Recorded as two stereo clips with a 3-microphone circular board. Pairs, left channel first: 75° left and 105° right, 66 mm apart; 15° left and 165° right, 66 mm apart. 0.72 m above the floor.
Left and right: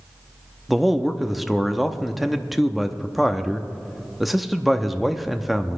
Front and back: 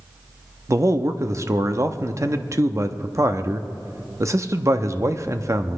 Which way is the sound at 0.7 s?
170° left.